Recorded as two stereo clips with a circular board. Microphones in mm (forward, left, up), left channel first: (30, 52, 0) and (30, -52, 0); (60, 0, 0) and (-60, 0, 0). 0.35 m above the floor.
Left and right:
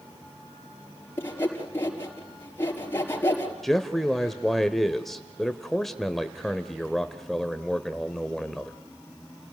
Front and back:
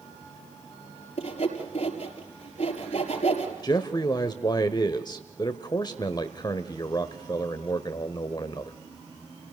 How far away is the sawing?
About 5 m.